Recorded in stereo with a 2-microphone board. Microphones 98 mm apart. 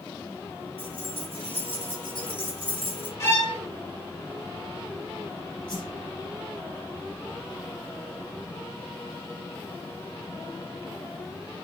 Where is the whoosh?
50° left (ahead or behind), 4.5 m.